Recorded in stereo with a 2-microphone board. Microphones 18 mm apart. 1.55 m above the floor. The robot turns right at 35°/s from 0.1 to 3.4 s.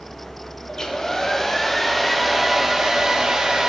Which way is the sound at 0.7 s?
125° left.